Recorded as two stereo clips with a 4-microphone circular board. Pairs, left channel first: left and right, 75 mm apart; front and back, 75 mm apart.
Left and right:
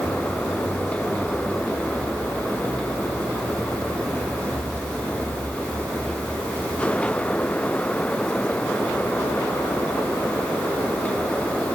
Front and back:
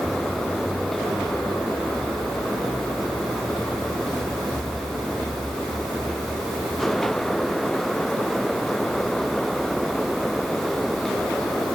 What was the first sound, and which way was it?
Only background noise.